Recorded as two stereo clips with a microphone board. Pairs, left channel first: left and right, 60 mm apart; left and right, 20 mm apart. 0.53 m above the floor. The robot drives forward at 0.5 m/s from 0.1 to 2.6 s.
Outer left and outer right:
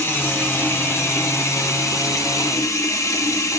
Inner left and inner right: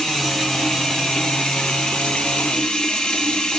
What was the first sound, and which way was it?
Running water, 35° left (ahead or behind).